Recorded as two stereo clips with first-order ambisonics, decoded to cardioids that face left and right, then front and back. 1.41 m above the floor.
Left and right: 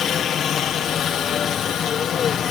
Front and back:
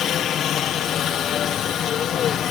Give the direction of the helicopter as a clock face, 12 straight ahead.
11 o'clock.